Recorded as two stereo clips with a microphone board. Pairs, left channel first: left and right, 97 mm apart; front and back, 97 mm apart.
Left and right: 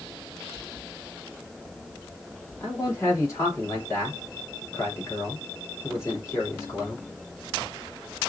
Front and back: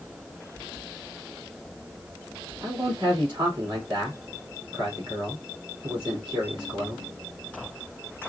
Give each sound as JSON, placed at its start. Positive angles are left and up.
{"t": 2.6, "sound": "a man speaking", "azimuth_deg": 145, "distance_m": 2.5}